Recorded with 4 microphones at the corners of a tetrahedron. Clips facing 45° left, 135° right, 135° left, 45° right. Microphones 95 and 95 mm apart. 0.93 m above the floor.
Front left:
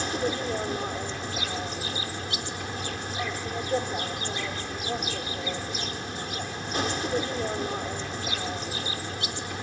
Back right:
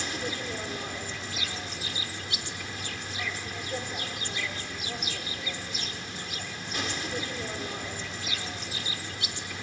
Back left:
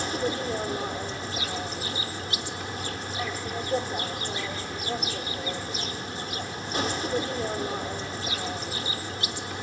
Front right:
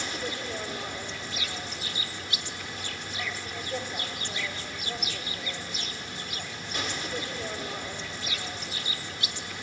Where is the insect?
90° left, 0.7 m.